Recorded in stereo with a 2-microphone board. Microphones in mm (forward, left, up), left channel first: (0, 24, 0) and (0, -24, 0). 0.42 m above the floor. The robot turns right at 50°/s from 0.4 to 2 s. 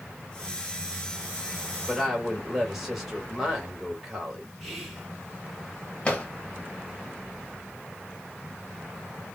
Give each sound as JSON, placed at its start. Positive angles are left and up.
{"t": 1.9, "sound": "a woman speaking", "side_deg": 0, "distance_m": 2.0}
{"t": 4.6, "sound": "whispering", "side_deg": 0, "distance_m": 2.0}
{"t": 6.0, "sound": "a drawer", "side_deg": 25, "distance_m": 1.4}